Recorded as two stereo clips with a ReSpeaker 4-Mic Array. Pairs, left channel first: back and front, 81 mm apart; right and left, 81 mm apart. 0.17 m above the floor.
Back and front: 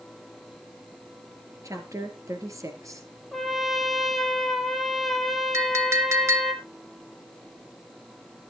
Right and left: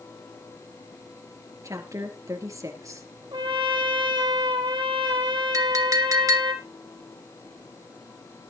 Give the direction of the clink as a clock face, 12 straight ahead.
10 o'clock.